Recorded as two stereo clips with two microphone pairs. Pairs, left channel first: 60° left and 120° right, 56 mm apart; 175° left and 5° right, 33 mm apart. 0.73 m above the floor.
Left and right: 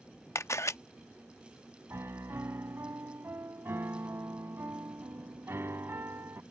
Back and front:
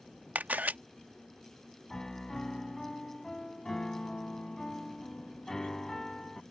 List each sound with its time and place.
0.3 s a camera shutter: 25° left
1.9 s a piano: 115° right